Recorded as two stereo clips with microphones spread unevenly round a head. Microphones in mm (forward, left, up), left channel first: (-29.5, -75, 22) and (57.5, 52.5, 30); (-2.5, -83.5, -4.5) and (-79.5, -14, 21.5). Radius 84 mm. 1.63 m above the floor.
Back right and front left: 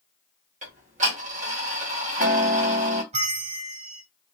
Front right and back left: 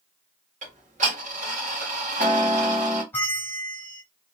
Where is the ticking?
105° left, 1.3 m.